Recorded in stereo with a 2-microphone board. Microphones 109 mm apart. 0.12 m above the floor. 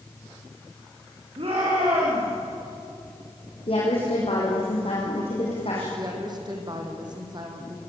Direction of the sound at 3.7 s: 60° left (ahead or behind).